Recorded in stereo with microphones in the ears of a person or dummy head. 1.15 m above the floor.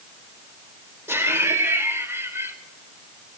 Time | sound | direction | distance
1.1 | laughter | 15° right (ahead or behind) | 2 m